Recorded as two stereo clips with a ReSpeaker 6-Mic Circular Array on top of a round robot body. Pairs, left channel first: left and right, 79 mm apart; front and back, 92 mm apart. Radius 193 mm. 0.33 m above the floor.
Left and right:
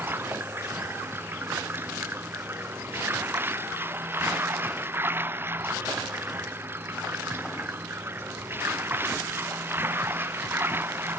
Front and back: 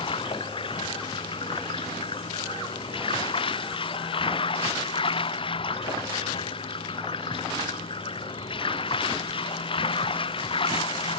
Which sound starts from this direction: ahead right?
Running water, at 0.0 s.